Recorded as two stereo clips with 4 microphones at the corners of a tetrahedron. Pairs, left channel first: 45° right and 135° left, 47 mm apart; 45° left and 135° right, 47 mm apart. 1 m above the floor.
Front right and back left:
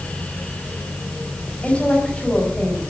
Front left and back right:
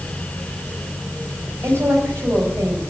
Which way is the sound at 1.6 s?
110° right.